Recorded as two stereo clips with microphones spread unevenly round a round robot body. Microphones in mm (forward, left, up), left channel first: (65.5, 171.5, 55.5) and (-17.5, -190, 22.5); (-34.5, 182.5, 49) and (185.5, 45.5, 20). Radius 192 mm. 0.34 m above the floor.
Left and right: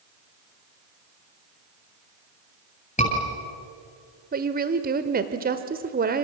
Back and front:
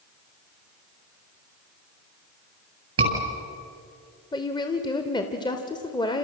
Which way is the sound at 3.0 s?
5° left.